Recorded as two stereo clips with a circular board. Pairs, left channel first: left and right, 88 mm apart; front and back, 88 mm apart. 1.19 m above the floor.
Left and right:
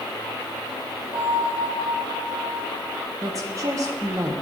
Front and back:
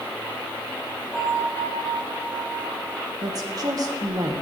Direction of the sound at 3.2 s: 140° right.